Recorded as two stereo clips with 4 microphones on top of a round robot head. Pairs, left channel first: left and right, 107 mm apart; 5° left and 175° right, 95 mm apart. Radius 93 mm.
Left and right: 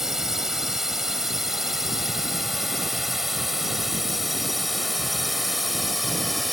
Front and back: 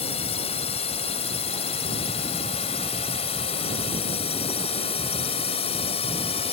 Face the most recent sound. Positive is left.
turn(degrees=0)